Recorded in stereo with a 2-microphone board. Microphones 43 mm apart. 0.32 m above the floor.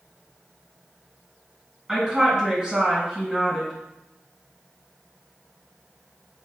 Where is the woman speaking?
15° right (ahead or behind), 1.8 m.